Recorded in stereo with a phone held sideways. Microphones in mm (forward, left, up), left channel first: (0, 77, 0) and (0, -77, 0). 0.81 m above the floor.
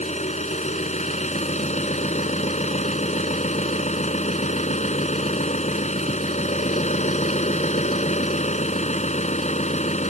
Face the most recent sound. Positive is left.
turn(degrees=50)  # may be behind; listen again after turning